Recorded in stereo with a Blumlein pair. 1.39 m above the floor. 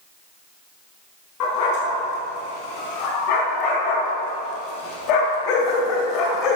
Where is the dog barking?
40° left, 5.5 m; by 6.6 s 35° left, 2 m.